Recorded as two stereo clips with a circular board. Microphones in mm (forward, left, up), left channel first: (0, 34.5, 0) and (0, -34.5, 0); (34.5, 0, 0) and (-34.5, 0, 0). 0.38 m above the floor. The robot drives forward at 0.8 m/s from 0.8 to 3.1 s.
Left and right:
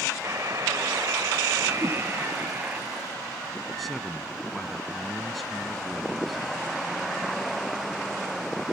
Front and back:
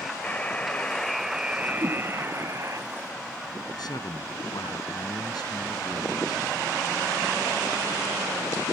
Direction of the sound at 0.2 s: 70° right.